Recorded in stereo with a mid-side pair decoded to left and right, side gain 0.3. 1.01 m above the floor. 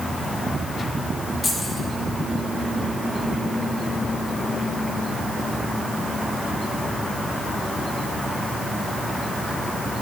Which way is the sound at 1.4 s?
45° left.